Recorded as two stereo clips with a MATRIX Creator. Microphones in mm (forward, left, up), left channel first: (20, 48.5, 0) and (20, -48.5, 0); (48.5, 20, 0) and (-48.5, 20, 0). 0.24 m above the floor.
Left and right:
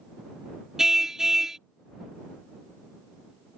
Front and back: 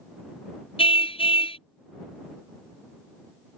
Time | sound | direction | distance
0.8 | a car horn | 5° right | ?